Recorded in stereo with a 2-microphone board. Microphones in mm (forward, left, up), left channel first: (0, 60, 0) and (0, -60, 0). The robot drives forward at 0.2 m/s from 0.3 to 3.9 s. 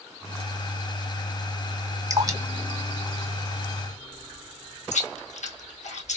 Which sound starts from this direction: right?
Dripping, at 2.1 s.